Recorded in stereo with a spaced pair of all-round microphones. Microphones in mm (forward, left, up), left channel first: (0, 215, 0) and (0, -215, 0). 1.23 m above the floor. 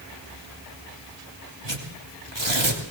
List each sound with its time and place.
1.6 s tearing paper: 65° right (ahead or behind), 3 m